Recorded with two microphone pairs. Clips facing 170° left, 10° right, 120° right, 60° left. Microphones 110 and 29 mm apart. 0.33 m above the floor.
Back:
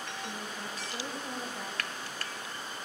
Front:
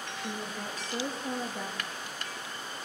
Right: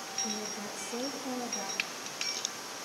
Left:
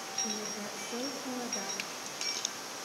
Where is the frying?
75° right, 1.4 m.